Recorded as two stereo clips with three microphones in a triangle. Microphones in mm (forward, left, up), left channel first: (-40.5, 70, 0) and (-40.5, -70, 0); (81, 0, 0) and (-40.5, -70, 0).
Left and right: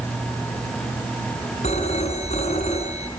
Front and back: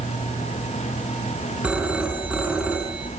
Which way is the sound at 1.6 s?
125° left.